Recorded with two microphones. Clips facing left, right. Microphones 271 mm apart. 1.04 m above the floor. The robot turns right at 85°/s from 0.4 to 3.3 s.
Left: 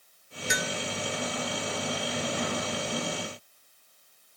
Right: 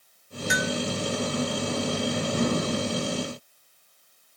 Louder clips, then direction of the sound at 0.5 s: Right 6 dB; 45° left (ahead or behind).